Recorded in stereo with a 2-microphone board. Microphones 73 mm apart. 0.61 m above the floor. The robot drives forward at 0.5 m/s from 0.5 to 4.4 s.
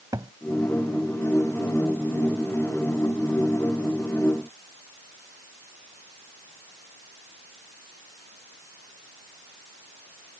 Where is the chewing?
I don't hear chewing.